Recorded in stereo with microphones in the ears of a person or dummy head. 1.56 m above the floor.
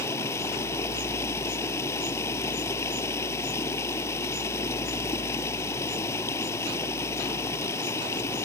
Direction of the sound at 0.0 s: 20° left (ahead or behind).